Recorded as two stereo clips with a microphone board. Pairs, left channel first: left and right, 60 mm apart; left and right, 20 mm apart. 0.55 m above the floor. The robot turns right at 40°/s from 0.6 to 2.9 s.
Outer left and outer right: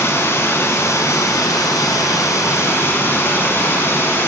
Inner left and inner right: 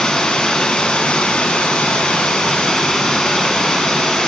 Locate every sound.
0.0 s running water: 45° left, 1.2 m; by 4.3 s 140° left, 1.2 m